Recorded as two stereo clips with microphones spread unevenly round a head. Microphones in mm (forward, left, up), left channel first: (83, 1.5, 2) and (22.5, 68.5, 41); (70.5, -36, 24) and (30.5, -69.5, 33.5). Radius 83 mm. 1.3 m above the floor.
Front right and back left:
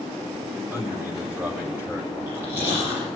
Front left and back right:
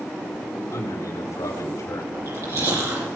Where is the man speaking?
65° left, 5.5 m; by 2.0 s 60° left, 6 m.